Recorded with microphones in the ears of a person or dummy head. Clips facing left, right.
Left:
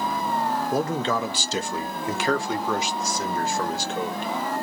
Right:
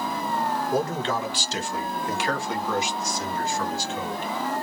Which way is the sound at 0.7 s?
55° left (ahead or behind).